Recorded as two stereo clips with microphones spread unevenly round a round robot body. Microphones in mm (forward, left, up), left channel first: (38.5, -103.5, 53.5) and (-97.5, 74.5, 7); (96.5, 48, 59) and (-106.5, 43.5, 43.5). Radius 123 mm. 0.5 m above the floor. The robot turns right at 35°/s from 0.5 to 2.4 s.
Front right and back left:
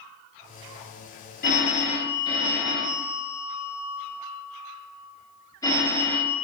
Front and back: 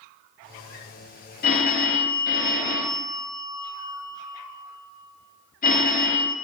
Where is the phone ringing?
5° right, 0.6 m; by 6.3 s 30° left, 0.6 m.